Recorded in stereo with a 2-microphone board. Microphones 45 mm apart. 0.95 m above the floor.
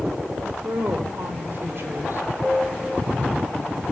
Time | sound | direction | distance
0.4 | a woman speaking | 50° right (ahead or behind) | 3.5 m
2.4 | a piano | 5° right (ahead or behind) | 1.3 m